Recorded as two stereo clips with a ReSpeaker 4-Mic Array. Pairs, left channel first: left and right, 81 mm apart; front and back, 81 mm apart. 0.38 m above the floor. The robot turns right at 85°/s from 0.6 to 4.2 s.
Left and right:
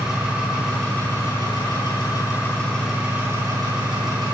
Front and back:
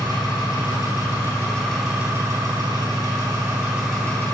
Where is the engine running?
10° right, 3 m; by 4.3 s 65° right, 3 m.